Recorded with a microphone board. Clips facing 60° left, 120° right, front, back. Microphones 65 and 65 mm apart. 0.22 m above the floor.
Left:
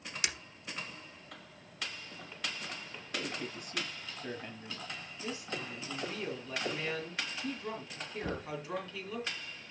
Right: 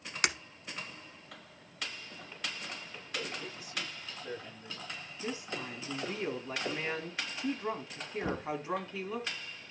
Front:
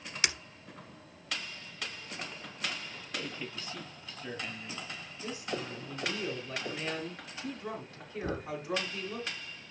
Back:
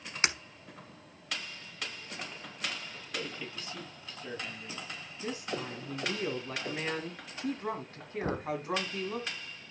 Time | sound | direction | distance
0.2 | breaking glass | 130° right | 0.9 m
3.1 | a man speaking | 70° left | 5 m
5.2 | a woman speaking | 155° right | 1.9 m
8.2 | knocking | 175° left | 0.9 m